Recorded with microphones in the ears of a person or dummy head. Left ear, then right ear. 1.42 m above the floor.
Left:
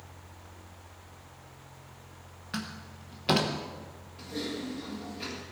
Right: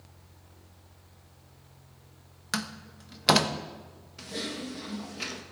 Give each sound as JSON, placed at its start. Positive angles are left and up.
{"t": 2.5, "sound": "a door slam", "side_deg": -65, "distance_m": 1.0}
{"t": 4.2, "sound": "typing on a keyboard", "side_deg": -55, "distance_m": 1.6}